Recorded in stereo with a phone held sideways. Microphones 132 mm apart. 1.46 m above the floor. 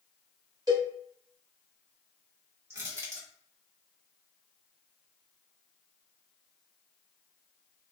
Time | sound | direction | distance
0.7 | a cowbell | 30° right (ahead or behind) | 1.2 m
2.7 | crushing | 20° right (ahead or behind) | 1.2 m